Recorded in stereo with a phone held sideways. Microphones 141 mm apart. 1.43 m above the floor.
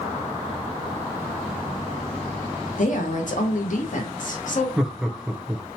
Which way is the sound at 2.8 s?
65° left (ahead or behind).